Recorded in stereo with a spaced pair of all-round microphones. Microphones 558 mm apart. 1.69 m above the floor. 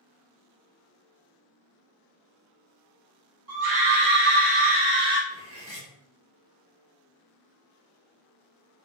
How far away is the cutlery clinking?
About 0.9 m.